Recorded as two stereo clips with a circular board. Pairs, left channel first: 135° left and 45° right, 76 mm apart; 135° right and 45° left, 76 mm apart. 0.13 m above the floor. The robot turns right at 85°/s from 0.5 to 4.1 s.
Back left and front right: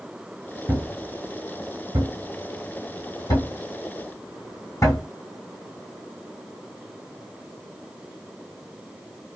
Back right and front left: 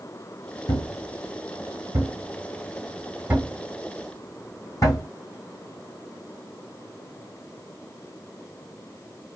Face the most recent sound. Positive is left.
turn(degrees=180)